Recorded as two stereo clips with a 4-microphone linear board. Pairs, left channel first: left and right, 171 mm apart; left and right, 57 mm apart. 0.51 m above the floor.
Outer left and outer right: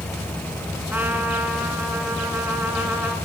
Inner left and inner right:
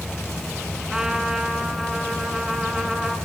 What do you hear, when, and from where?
0.9 s a trumpet: 10° right (ahead or behind), 4.5 m